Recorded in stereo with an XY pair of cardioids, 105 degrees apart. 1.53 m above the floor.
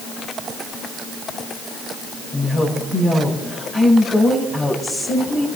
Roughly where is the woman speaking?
Ahead left.